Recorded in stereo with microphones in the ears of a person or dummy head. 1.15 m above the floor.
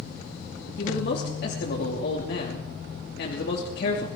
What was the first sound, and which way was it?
A man speaking, 55° left (ahead or behind).